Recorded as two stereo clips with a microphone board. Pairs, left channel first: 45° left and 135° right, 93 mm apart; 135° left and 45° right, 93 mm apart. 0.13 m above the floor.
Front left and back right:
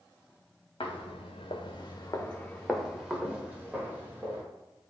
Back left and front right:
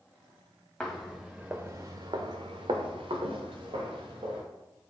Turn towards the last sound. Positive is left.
turn(degrees=-70)